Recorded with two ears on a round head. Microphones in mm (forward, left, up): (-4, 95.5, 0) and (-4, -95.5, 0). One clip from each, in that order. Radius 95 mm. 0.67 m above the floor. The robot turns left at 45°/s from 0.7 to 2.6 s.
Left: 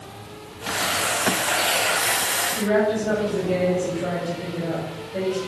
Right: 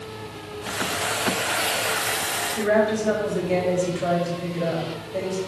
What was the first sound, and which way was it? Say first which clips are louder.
A woman speaking: right 3 dB; 35° right (ahead or behind).